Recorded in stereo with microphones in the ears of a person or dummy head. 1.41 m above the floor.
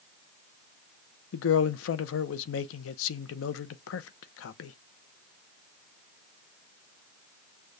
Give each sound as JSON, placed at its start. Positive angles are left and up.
{"t": 1.3, "sound": "a man speaking", "side_deg": 75, "distance_m": 0.7}